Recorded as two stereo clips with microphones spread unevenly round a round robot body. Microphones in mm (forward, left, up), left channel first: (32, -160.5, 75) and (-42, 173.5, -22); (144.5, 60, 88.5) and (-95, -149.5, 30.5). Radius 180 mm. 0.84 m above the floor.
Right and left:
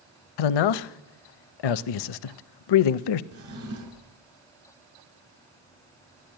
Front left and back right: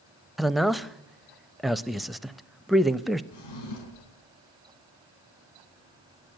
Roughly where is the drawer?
Ahead left.